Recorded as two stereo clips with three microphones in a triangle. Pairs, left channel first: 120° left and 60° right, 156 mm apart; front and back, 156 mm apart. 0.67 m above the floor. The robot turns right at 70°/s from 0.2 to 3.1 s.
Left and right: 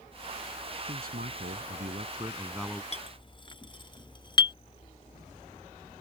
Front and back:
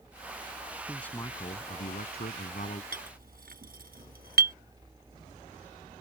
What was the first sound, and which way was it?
A man speaking, 90° right.